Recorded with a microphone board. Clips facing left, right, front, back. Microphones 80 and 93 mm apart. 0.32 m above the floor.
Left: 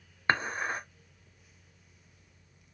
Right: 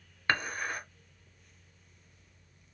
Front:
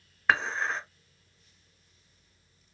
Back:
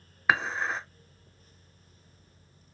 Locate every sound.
0.3 s dishes clattering: 105° left, 0.6 m